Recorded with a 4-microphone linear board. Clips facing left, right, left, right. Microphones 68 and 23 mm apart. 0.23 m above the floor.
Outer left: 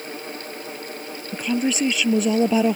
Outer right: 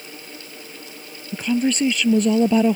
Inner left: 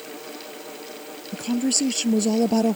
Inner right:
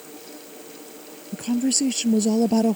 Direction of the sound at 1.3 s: Centre (ahead or behind).